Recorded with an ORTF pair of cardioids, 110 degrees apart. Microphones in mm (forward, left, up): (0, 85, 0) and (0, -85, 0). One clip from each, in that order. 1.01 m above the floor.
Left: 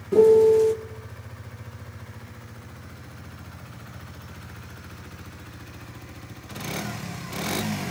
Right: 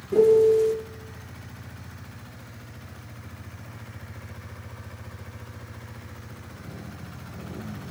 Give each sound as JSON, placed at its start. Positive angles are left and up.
{"t": 0.1, "sound": "a piano", "azimuth_deg": 20, "distance_m": 1.0}